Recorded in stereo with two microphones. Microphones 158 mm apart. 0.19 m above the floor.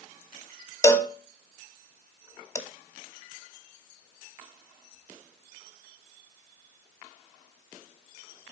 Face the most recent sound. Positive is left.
turn(degrees=20)  # may be behind; listen again after turning